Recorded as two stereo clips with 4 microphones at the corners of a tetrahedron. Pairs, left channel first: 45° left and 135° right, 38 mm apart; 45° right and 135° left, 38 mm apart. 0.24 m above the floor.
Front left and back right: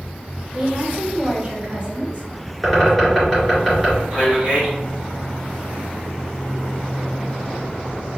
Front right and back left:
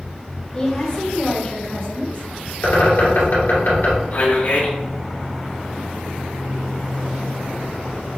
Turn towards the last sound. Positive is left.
turn(degrees=-65)